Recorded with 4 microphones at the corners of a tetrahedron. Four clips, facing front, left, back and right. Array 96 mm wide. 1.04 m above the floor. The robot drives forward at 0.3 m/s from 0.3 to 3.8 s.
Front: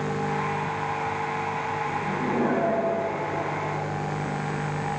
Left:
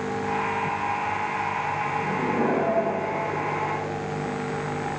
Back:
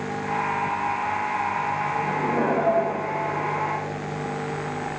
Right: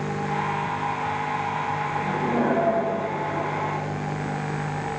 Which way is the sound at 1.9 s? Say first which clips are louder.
Right 2 dB, back 1 dB; 135° right.